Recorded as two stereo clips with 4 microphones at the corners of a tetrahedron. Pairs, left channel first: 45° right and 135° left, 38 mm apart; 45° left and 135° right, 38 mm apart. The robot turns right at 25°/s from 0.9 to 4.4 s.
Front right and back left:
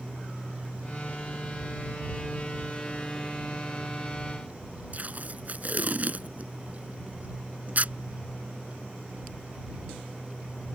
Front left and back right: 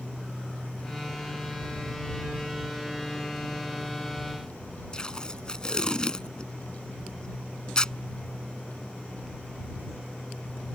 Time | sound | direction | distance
4.9 | tape being pulled | 105° left | ?